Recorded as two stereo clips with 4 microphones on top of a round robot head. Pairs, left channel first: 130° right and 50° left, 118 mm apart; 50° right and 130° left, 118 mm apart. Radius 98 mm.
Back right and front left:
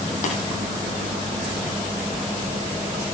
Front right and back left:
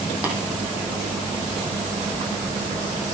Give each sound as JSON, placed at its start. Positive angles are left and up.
{"t": 0.2, "sound": "tapping", "azimuth_deg": -150, "distance_m": 5.0}